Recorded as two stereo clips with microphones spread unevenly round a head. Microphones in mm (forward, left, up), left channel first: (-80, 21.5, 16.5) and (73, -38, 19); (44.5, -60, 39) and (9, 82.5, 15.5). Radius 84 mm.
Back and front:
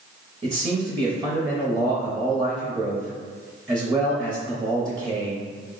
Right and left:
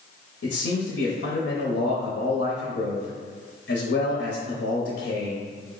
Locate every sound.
0.4 s a man speaking: 90° right, 0.7 m